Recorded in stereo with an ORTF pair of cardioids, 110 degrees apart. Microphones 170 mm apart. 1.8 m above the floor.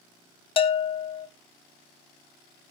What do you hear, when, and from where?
0.6 s a bell: 30° left, 1.1 m